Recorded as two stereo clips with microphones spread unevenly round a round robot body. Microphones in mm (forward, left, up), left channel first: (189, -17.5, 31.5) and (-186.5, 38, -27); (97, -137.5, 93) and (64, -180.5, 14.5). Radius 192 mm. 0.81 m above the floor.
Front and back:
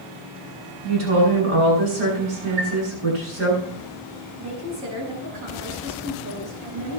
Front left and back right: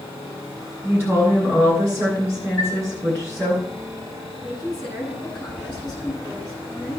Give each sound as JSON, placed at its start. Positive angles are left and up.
{"t": 0.8, "sound": "a woman speaking", "azimuth_deg": 175, "distance_m": 8.5}
{"t": 2.6, "sound": "a chime", "azimuth_deg": 175, "distance_m": 8.0}
{"t": 4.4, "sound": "a woman speaking", "azimuth_deg": 145, "distance_m": 8.0}